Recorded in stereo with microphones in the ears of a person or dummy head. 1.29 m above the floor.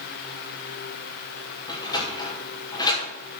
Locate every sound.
1.7 s a sliding door: 25° left (ahead or behind), 3 m